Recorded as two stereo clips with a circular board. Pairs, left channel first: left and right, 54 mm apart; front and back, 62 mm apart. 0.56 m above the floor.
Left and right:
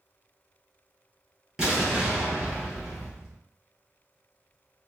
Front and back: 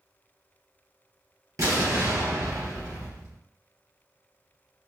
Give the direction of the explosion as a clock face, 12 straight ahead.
5 o'clock.